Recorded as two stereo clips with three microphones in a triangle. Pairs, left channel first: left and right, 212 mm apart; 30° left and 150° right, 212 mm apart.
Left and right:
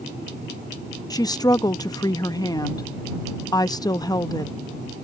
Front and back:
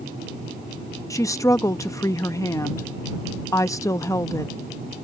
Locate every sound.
1.1 s a woman speaking: 70° left